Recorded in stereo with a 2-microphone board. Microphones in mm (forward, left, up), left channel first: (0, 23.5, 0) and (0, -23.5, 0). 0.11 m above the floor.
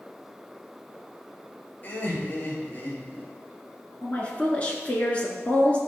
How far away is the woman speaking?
About 1.1 m.